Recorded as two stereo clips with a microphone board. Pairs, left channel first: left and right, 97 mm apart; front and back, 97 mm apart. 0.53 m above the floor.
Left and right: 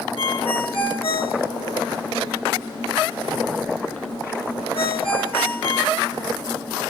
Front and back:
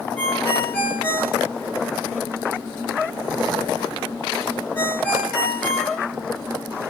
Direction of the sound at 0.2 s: 75° left.